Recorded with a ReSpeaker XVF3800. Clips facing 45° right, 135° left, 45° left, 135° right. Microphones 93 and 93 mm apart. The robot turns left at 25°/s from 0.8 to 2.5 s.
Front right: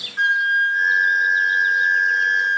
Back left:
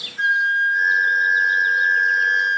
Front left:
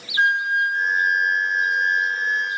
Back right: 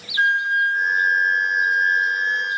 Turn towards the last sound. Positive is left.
turn(degrees=-65)